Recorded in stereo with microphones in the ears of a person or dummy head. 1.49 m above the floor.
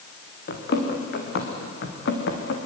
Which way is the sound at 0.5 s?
60° left (ahead or behind).